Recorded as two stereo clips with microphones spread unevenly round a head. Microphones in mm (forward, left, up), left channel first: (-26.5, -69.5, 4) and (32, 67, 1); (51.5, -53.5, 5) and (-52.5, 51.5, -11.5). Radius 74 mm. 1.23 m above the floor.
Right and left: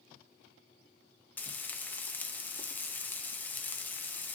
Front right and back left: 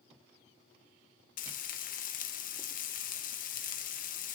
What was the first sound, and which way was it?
Frying, 35° right.